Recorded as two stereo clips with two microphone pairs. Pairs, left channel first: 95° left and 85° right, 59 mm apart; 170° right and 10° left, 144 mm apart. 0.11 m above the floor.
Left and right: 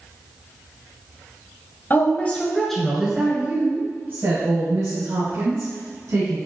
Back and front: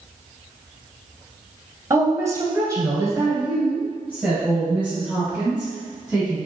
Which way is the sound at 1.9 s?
70° left.